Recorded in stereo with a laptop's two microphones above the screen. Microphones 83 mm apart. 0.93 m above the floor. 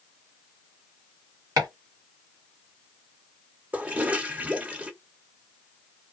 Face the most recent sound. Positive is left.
turn(degrees=-15)  # may be behind; listen again after turning